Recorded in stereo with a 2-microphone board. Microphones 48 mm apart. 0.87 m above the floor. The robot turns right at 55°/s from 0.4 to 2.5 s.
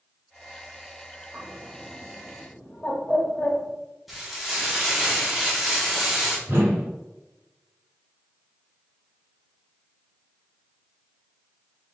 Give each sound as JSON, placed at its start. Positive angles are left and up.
{"t": 1.3, "sound": "a bird", "side_deg": -35, "distance_m": 1.0}
{"t": 4.1, "sound": "frying", "side_deg": 0, "distance_m": 1.3}
{"t": 6.5, "sound": "a whoosh", "side_deg": -60, "distance_m": 1.4}